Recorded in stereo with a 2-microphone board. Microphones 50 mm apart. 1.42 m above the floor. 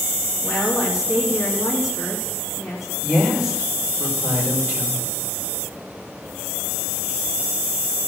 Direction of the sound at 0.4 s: Centre (ahead or behind).